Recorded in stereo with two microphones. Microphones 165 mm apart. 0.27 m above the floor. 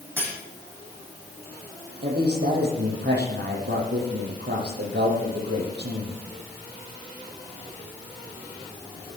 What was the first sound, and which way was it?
Cutlery clinking, 10° right (ahead or behind).